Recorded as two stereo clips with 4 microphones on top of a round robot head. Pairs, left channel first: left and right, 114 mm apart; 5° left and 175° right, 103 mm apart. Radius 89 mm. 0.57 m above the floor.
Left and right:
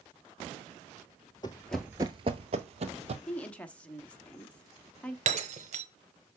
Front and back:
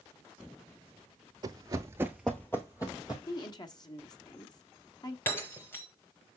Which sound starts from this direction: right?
Breaking glass, at 5.3 s.